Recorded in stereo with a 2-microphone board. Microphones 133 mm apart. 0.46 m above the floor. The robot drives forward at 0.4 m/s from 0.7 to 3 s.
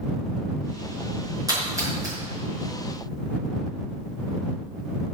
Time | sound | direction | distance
1.5 | a splash | 25° right (ahead or behind) | 6 m